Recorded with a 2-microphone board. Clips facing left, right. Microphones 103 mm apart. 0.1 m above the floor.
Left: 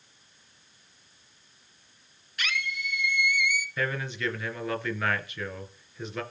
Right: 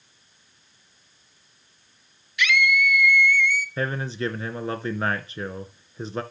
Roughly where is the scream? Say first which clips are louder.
Right 11 dB; left.